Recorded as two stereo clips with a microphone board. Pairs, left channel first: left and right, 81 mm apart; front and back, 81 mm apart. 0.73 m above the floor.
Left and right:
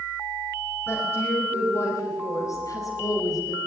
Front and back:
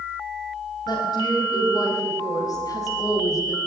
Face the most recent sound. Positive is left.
turn(degrees=50)